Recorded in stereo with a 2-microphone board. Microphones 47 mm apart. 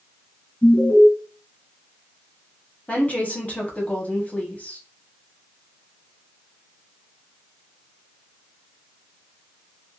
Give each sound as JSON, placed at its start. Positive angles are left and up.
{"t": 0.6, "sound": "an alarm", "side_deg": 45, "distance_m": 2.0}
{"t": 2.9, "sound": "a woman speaking", "side_deg": 30, "distance_m": 0.9}